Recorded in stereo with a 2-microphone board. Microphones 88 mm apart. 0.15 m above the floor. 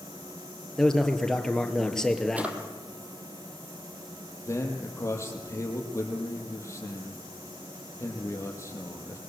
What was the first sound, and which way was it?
A man speaking, 5° left (ahead or behind).